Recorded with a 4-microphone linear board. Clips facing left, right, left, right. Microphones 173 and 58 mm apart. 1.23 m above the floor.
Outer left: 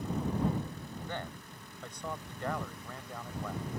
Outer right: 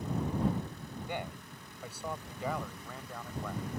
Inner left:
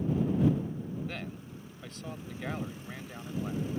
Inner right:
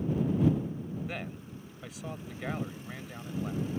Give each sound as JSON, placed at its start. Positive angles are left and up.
{"t": 1.1, "sound": "a man speaking", "side_deg": -15}